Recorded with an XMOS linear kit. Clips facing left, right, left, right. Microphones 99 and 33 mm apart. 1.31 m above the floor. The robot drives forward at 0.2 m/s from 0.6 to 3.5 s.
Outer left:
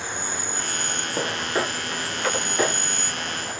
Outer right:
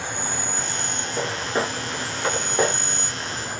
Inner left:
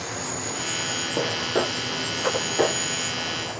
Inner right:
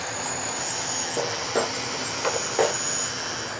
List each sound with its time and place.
0.0 s an insect: 60° right (ahead or behind), 1.9 m; by 3.6 s 55° right (ahead or behind), 2.0 m
1.2 s footsteps: 10° left (ahead or behind), 1.6 m; by 2.7 s 35° right (ahead or behind), 2.5 m